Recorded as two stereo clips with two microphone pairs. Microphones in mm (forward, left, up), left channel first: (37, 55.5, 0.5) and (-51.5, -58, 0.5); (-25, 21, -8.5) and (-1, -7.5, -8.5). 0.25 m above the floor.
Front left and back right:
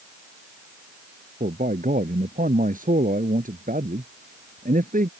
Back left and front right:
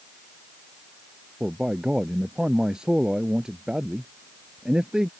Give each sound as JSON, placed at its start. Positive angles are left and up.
{"t": 1.4, "sound": "a man speaking", "azimuth_deg": -120}